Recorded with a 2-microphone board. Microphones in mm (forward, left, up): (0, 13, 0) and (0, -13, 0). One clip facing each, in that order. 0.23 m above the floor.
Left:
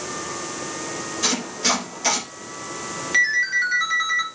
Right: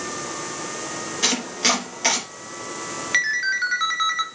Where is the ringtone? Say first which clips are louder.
Left 2 dB; 20° right (ahead or behind), 1.5 m.